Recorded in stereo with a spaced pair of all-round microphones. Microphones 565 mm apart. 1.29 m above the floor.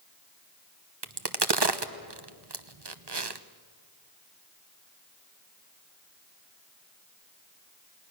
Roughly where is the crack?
Right.